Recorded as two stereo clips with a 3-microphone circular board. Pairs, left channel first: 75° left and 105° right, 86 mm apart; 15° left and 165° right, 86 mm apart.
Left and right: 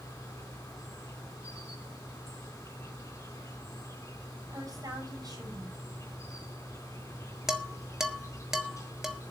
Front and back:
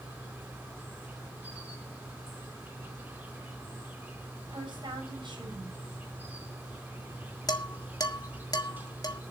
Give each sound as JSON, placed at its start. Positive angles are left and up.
{"t": 0.0, "sound": "an insect", "azimuth_deg": 130, "distance_m": 4.0}
{"t": 4.5, "sound": "a woman speaking", "azimuth_deg": -145, "distance_m": 6.5}
{"t": 7.5, "sound": "dishes clattering", "azimuth_deg": -20, "distance_m": 1.2}